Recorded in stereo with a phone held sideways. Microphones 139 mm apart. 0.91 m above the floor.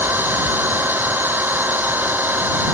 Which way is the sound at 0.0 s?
15° right (ahead or behind).